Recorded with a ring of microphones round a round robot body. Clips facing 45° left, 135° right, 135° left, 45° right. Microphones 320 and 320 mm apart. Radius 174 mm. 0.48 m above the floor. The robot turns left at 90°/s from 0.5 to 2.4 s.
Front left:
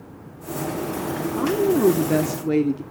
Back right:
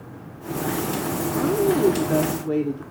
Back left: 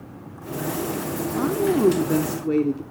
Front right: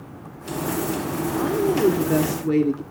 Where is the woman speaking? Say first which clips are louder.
Front left 1 dB, even; 130° left, 1.1 m; by 2.8 s 35° left, 1.1 m.